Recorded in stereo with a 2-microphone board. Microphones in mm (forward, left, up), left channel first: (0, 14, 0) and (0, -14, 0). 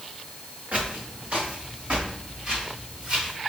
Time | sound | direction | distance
0.7 | footsteps | 55° right (ahead or behind) | 2 m